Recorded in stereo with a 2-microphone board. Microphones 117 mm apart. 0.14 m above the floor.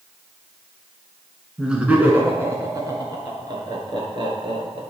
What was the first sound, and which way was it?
Laughter, 5° right (ahead or behind).